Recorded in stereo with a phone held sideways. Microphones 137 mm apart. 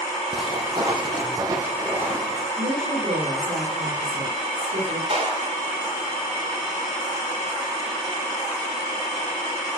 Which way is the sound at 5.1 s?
50° right (ahead or behind).